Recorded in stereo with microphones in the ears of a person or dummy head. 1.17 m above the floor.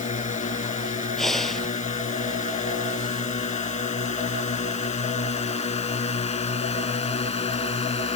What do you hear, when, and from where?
0.0 s a drone: 35° left (ahead or behind); by 8.2 s 25° left (ahead or behind)
1.2 s breathing: centre (ahead or behind)